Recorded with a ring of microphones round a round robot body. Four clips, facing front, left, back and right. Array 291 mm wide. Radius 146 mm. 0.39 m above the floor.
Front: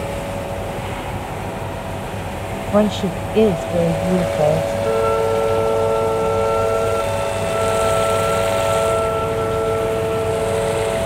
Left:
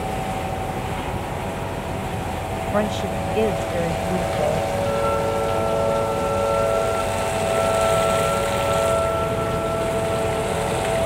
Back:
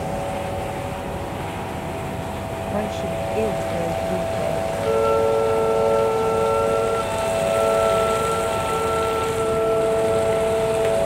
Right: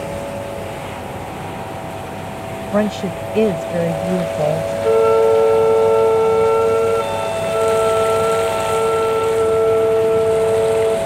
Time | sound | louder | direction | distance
2.7 | a woman speaking | right 5 dB, front 9 dB | 35° right | ?
4.8 | a flute | right 14 dB, back 1 dB | 90° right | ?